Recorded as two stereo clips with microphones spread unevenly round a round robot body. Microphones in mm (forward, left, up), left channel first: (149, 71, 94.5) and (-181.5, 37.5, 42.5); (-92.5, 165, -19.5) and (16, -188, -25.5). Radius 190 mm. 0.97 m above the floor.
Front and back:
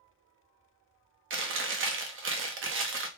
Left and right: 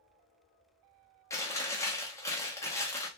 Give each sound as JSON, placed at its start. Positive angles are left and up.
{"t": 1.3, "sound": "chewing", "azimuth_deg": -175, "distance_m": 0.7}